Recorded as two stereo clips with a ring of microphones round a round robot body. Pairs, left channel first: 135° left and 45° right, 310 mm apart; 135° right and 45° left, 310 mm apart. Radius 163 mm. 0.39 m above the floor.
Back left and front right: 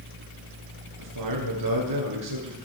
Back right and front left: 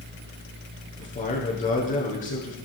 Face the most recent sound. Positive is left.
turn(degrees=-70)